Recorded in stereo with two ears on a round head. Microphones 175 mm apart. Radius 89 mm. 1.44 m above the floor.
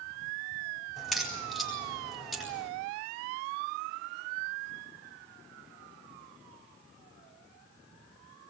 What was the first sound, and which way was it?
A crack, centre (ahead or behind).